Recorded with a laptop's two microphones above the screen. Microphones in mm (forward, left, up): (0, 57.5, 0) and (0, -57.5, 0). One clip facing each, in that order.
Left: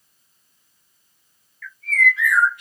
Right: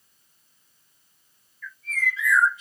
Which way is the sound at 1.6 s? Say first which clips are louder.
Left 8 dB; 80° left.